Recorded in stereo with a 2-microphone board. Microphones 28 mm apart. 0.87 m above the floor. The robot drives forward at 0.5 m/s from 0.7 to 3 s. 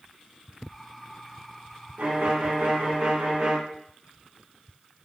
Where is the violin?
70° right (ahead or behind), 1.1 m; by 3.6 s 55° right (ahead or behind), 1.3 m.